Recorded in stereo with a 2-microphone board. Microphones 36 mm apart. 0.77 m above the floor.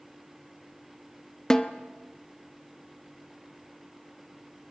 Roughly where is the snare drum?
Centre.